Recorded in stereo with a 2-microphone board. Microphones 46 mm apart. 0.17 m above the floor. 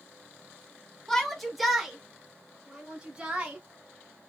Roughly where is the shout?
Centre.